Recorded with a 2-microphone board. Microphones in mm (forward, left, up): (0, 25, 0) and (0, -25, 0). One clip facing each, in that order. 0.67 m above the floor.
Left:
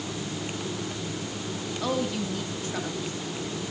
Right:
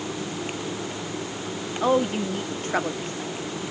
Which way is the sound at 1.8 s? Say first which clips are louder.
Right 7 dB; 30° right (ahead or behind).